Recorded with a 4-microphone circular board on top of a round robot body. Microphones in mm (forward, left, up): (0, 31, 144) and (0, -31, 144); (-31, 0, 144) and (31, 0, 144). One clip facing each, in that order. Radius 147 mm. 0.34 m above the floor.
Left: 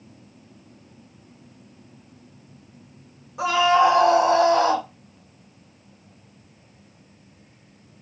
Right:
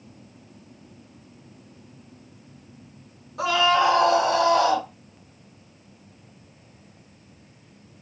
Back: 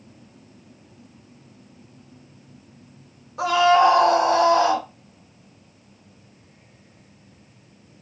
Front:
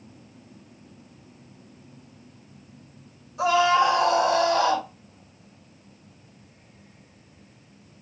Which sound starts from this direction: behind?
A scream, at 3.4 s.